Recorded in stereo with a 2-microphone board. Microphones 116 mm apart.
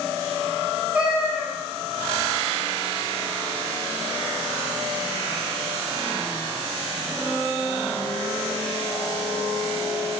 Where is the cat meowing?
10° right (ahead or behind), 0.6 m.